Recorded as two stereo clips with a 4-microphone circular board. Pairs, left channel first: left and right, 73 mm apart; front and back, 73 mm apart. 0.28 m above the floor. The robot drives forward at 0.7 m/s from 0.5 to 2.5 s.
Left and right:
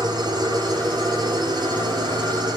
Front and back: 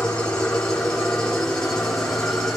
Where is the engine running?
75° right, 9.5 m; by 2.6 s 85° right, 9.5 m.